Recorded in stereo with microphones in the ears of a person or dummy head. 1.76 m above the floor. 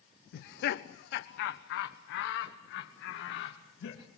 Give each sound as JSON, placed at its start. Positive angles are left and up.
{"t": 0.3, "sound": "laughter", "side_deg": 55, "distance_m": 0.7}